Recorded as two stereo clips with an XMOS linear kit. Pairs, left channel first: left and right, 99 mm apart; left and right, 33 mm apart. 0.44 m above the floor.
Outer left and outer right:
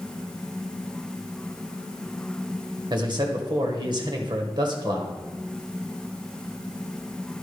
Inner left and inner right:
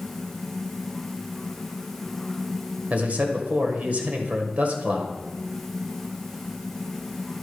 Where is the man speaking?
50° right (ahead or behind), 1.7 m.